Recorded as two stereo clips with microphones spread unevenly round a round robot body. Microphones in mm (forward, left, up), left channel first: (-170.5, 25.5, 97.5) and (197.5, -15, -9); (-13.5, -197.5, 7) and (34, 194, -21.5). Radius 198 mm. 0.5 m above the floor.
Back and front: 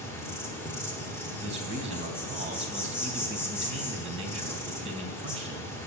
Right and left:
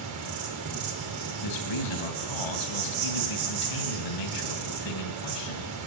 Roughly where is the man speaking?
Right.